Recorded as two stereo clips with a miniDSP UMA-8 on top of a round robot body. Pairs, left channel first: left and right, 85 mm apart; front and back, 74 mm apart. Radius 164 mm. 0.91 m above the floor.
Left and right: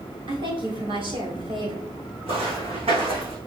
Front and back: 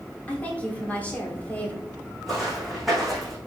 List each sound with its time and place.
0.3 s a woman speaking: 70° right, 4 m
2.3 s footsteps: 95° right, 4 m; by 3.4 s 90° right, 3.5 m